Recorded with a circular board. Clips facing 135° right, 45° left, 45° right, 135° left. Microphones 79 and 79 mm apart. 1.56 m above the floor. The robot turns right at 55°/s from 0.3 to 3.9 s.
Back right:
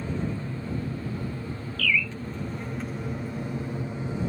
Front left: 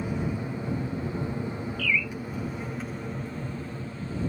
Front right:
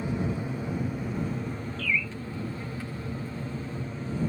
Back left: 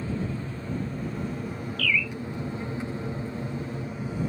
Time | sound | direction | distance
0.0 | an aircraft | 5° right | ?
1.8 | a bird | 15° right | ?